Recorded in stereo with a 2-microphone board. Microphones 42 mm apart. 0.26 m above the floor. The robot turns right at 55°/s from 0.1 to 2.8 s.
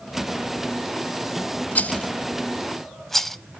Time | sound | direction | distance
1.8 | a rattle | 35° left (ahead or behind) | 0.6 m